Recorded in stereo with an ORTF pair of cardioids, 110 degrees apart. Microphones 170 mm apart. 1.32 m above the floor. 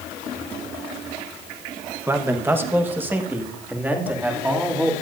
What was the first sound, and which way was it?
A man speaking, 15° right.